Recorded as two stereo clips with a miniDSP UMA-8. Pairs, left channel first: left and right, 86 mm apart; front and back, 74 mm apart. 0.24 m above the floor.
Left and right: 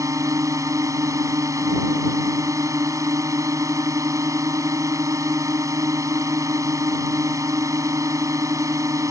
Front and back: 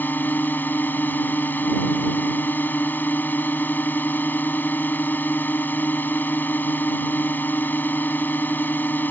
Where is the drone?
55° right.